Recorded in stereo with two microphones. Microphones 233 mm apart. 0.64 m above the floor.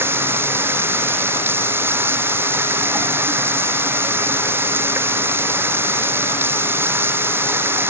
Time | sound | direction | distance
0.0 | running water | 10° right (ahead or behind) | ?